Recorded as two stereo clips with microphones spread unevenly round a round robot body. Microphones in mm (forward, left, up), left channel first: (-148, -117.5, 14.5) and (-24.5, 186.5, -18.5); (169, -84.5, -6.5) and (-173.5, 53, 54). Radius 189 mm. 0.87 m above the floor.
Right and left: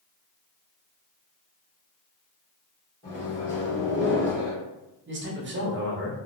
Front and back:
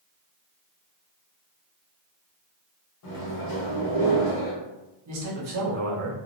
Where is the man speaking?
110° left, 0.8 m.